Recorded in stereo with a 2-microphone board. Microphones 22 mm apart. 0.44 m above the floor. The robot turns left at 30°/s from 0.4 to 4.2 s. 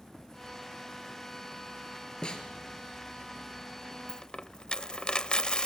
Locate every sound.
2.2 s a snare drum: 40° left (ahead or behind), 3 m; by 2.4 s 45° left (ahead or behind), 3 m
4.1 s a dropped coin: 35° left (ahead or behind), 0.6 m; by 5.7 s 40° left (ahead or behind), 0.6 m